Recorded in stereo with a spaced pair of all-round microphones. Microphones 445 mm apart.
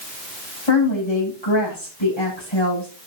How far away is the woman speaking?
About 8.5 m.